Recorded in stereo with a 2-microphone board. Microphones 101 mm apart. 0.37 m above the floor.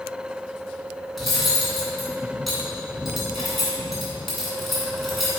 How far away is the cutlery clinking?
About 2.5 m.